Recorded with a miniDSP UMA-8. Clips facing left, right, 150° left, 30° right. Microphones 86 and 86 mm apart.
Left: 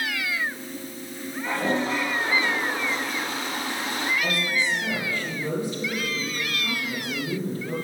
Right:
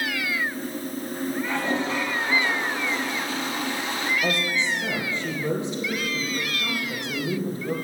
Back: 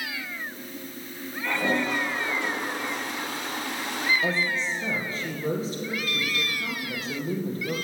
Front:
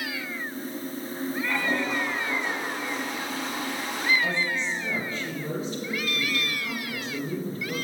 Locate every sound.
1.4 s a toilet flushing: 140° left, 6 m
4.2 s a woman speaking: 160° right, 5.5 m